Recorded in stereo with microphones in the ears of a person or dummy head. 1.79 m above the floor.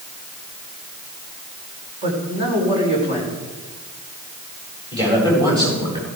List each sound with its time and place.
2.0 s a man speaking: 30° right (ahead or behind), 5 m
4.9 s a man speaking: 25° right (ahead or behind), 9 m